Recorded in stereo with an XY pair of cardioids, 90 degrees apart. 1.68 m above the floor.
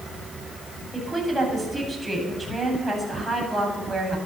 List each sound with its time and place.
0.9 s a woman speaking: 10° right, 9 m